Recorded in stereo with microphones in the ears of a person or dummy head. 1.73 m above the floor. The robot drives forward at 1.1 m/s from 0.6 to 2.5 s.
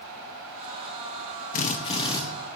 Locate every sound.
1.5 s a drill: 40° left (ahead or behind), 0.9 m; by 2.2 s 25° left (ahead or behind), 1.4 m